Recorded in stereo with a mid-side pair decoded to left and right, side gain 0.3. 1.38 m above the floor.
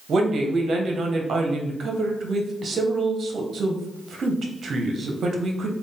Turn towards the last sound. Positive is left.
turn(degrees=-70)